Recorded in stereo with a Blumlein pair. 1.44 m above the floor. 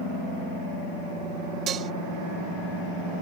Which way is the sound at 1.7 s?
25° right.